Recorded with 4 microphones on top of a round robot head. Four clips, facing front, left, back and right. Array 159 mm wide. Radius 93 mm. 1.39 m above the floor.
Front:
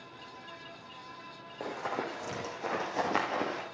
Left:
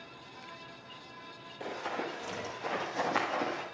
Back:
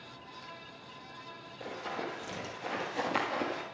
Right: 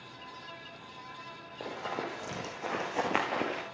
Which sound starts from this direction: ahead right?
Running footsteps, at 1.6 s.